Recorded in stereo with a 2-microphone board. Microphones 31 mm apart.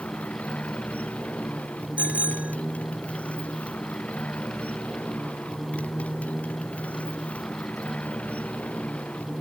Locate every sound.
0.0 s a motorcycle: 55° left (ahead or behind)
2.0 s a bicycle bell: 55° right (ahead or behind)